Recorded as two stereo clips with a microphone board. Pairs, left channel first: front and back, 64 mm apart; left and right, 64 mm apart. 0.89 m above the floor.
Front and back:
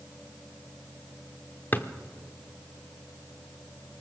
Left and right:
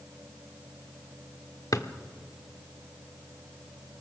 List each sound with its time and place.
1.7 s a drawer: 60° left, 1.1 m